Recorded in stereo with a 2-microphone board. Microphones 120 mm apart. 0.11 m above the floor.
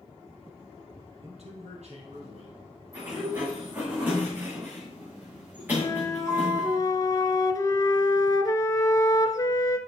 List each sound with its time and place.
1.2 s a man speaking: 65° right (ahead or behind), 2.5 m; by 2.6 s 60° right (ahead or behind), 3 m
2.9 s a sliding door: 15° right (ahead or behind), 5.5 m
5.8 s a flute: 30° left (ahead or behind), 0.8 m